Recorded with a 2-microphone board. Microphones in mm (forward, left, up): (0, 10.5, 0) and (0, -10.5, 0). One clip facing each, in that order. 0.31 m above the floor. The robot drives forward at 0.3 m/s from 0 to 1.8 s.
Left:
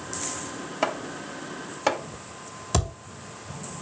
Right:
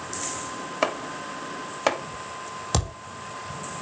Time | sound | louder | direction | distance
0.8 | chopping | right 1 dB | 25° right (ahead or behind) | 1.3 m
2.7 | a thud | left 1 dB | 20° right (ahead or behind) | 2.5 m